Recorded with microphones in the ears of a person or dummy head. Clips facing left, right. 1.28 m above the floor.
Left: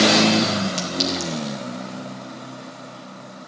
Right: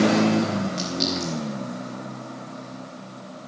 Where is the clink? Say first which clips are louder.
Left 1 dB; 40° left (ahead or behind), 2 m.